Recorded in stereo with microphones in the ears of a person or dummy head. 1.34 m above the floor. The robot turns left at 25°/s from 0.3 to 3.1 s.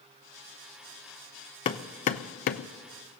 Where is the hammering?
20° left (ahead or behind), 0.6 m; by 2.7 s 45° left (ahead or behind), 0.6 m.